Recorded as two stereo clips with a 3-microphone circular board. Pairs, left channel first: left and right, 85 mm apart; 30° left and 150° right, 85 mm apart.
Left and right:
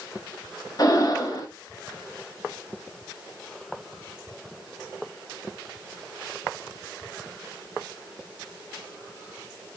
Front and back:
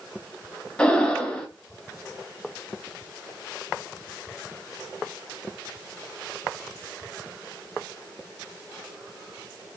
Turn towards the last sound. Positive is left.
turn(degrees=105)